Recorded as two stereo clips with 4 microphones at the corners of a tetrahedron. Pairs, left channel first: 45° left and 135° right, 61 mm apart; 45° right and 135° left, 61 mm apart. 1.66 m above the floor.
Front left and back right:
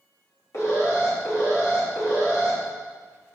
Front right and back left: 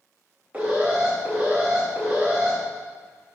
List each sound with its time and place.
0.5 s an alarm: 65° left, 3 m